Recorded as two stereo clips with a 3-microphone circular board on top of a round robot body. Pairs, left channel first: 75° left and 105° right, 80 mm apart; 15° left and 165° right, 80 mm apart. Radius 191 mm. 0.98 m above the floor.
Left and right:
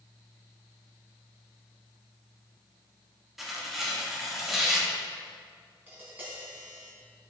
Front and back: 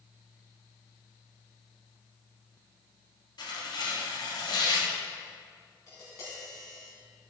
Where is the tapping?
35° right, 4.5 m.